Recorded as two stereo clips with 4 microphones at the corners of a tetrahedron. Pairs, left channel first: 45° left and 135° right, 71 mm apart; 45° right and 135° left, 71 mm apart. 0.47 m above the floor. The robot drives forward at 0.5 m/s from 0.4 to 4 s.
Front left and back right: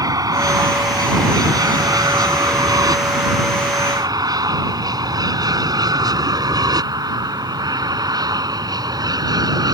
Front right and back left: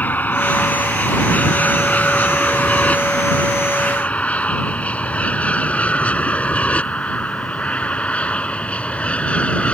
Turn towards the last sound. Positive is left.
turn(degrees=-120)